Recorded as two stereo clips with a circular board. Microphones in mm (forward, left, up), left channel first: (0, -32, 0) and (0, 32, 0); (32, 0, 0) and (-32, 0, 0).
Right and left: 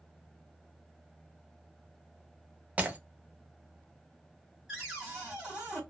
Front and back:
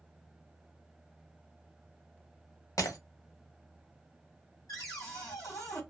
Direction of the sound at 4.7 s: 10° left.